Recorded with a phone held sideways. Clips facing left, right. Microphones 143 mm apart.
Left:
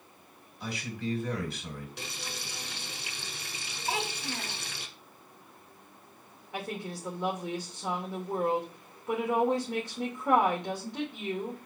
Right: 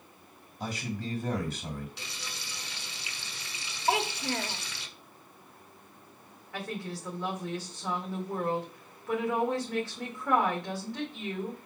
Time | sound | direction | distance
0.6 | a man speaking | 50° right (ahead or behind) | 4.5 m
2.0 | frying | 65° left (ahead or behind) | 1.1 m
3.9 | a child speaking | 75° right (ahead or behind) | 1.0 m
6.5 | a woman speaking | 20° left (ahead or behind) | 2 m